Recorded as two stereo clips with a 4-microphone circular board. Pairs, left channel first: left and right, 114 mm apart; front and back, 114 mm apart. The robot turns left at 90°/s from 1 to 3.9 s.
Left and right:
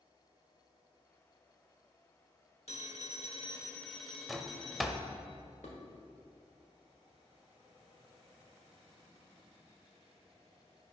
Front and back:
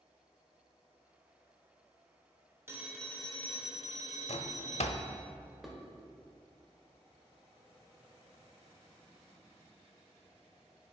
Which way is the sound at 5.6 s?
90° left.